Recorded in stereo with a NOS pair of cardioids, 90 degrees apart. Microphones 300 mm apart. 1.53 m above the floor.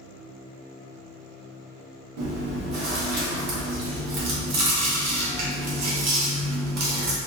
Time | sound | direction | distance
2.2 | chewing | 55° right | 0.8 m